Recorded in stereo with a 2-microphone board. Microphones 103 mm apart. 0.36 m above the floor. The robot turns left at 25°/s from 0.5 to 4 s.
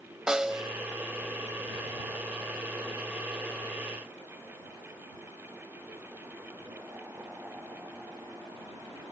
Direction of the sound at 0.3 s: 5° right (ahead or behind).